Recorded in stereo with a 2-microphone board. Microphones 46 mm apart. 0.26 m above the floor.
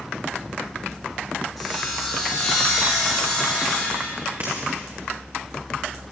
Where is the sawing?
5° right (ahead or behind), 9.5 m.